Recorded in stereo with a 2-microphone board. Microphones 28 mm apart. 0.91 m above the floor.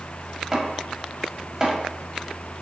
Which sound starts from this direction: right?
Chopping, at 0.5 s.